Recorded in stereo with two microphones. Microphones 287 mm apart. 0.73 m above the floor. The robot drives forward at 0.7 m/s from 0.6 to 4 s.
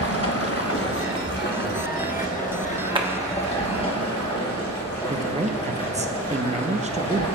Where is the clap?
15° right (ahead or behind), 1.0 m; by 3.1 s 20° right (ahead or behind), 0.9 m.